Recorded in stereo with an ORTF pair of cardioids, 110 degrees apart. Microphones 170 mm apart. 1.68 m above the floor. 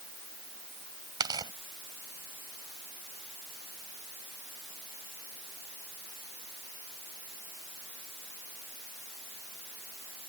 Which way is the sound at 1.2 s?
25° right.